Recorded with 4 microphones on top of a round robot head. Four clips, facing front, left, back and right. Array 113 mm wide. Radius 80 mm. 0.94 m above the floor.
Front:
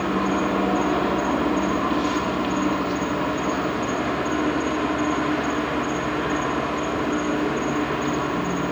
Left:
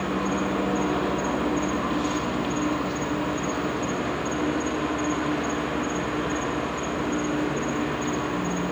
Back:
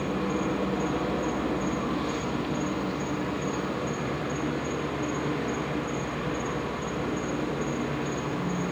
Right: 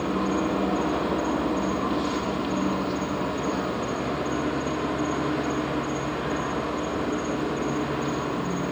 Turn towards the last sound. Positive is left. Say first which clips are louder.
# right 1 dB, front 6 dB
turn(degrees=-20)